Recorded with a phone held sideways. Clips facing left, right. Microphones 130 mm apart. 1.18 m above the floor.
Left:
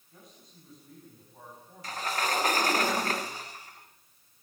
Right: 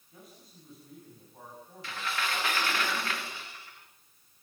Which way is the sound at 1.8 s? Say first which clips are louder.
Left 4 dB; 40° left (ahead or behind).